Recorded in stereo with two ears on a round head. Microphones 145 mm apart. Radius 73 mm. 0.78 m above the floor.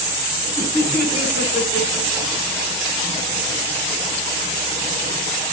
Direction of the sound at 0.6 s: 15° right (ahead or behind).